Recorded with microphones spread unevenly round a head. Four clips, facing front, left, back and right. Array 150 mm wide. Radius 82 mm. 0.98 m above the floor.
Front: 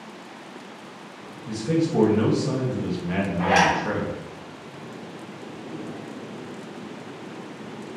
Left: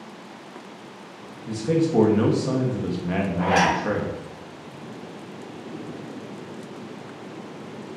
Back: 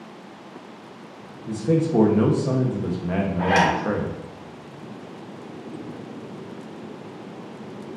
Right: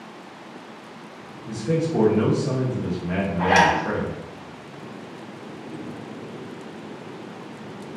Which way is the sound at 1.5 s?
145° left.